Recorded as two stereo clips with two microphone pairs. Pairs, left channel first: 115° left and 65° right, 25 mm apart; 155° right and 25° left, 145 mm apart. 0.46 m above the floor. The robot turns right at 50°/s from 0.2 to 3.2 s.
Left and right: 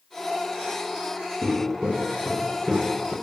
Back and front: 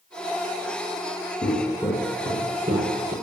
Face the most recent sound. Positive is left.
turn(degrees=50)